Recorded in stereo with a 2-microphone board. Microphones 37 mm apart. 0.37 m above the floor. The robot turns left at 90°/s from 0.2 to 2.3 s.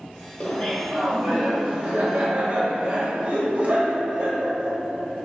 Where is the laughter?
75° left, 1.3 m; by 4.8 s 95° right, 1.3 m.